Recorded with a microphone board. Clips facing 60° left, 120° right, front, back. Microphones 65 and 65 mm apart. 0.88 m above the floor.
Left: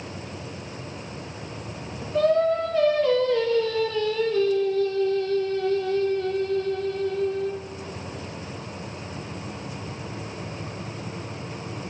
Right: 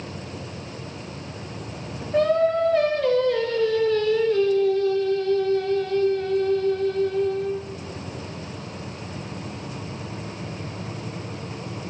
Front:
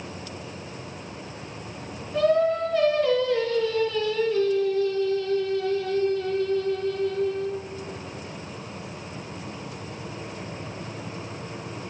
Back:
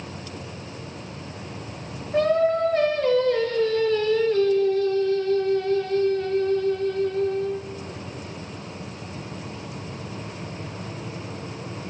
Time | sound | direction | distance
2.1 | singing | 135° right | 3.5 m